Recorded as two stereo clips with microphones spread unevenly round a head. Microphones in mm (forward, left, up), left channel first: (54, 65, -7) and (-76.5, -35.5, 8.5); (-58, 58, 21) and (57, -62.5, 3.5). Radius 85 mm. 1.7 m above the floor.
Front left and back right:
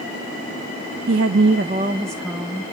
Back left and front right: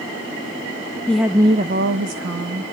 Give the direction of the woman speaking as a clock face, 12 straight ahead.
5 o'clock.